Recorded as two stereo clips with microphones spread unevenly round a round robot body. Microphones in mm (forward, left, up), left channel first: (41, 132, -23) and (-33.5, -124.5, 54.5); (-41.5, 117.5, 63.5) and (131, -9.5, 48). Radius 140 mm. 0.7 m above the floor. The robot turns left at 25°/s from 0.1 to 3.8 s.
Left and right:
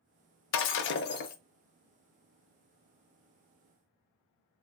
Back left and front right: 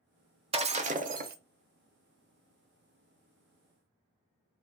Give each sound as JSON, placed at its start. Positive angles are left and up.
{"t": 0.5, "sound": "breaking glass", "azimuth_deg": 25, "distance_m": 0.6}